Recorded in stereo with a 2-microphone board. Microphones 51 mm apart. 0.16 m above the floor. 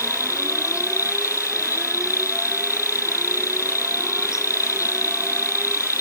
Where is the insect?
80° left.